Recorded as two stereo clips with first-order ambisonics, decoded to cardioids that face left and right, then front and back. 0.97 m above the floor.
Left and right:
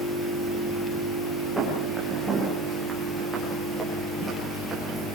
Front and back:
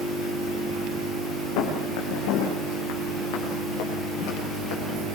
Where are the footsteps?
5° right, 8.5 m; by 5.1 s 15° right, 11 m.